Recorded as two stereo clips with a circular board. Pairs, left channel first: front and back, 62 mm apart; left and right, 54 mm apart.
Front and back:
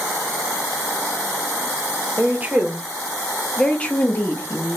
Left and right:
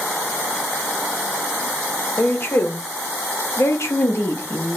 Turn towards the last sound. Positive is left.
turn(degrees=45)